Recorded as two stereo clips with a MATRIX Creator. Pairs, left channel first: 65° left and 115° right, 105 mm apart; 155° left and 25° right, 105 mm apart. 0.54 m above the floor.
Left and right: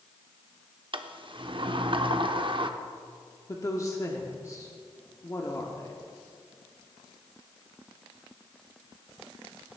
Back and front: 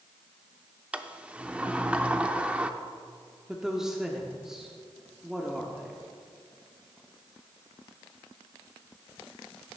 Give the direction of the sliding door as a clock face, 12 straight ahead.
3 o'clock.